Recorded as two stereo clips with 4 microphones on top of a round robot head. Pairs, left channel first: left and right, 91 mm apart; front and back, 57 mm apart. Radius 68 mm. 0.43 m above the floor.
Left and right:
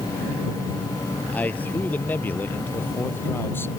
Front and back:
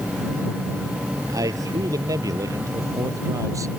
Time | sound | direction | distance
1.3 | a man speaking | 160° left | ?